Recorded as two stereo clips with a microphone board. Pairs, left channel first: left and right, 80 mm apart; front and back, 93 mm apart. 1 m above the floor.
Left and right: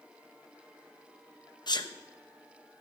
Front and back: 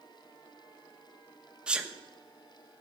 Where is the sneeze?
100° left, 0.9 m.